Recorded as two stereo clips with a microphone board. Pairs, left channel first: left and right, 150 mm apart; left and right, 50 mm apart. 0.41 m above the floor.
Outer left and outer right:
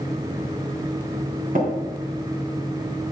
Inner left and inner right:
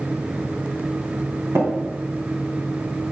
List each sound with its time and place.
1.6 s tapping: 65° right (ahead or behind), 3 m